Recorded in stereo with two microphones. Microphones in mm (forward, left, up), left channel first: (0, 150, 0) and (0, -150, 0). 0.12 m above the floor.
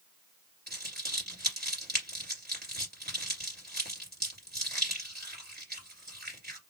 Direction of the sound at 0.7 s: 30° right (ahead or behind).